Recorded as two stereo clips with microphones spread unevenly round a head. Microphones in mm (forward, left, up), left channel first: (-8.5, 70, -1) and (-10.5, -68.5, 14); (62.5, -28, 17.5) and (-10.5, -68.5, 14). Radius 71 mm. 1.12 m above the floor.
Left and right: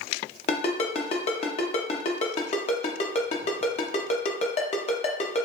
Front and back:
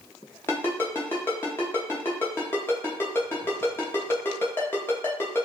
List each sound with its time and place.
0.5 s a ringtone: 75° left, 0.7 m